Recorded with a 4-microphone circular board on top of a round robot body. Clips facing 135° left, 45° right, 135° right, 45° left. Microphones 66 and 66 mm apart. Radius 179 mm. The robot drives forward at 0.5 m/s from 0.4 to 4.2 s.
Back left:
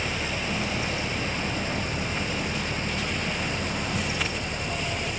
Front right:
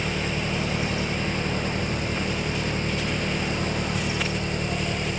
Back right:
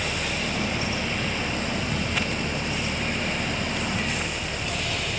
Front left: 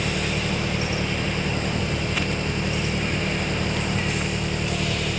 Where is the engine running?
Straight ahead.